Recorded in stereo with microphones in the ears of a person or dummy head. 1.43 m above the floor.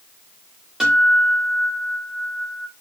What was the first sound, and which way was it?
A guitar, 5° right (ahead or behind).